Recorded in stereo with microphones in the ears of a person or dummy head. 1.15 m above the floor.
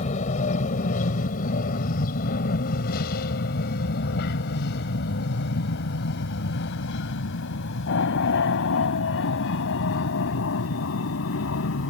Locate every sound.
0.0 s an aircraft: 45° left (ahead or behind); by 11.9 s 80° left